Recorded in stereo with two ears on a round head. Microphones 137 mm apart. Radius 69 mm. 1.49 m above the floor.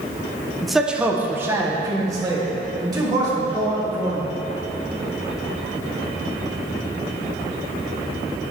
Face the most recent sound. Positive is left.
turn(degrees=-30)  # may be behind; listen again after turning